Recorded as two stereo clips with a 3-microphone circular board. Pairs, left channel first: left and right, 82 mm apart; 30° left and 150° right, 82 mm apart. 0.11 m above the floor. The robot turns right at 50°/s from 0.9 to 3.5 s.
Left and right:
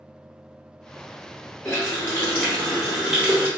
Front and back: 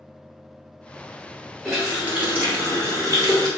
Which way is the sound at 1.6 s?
125° left.